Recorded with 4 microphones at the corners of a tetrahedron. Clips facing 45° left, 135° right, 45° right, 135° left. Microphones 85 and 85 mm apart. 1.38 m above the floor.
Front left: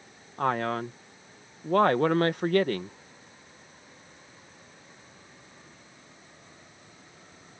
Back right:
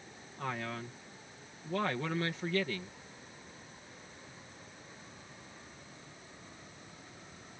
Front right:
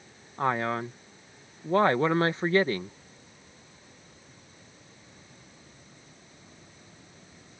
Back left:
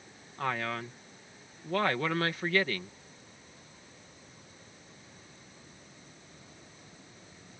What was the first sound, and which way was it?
A man speaking, 15° left.